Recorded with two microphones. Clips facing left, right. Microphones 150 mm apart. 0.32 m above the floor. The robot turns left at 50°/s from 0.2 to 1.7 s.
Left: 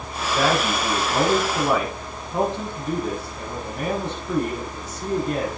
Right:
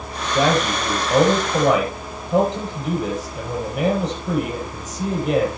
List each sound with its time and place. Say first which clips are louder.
0.3 s a man speaking: right 3 dB; 25° right, 8 m; by 5.5 s 95° right, 8 m